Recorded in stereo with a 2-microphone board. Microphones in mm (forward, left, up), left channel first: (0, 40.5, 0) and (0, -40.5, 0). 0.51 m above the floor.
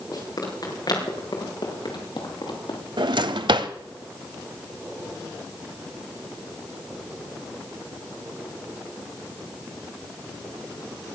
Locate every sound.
0.1 s running footsteps: 50° left (ahead or behind), 5 m; by 2.8 s 75° left (ahead or behind), 5 m
3.0 s a drawer: 75° right (ahead or behind), 0.8 m